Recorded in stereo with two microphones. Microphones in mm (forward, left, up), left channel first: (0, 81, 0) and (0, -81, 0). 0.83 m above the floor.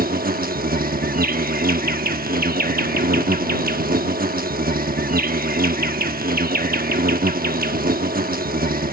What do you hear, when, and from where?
0.0 s an insect: 65° right (ahead or behind)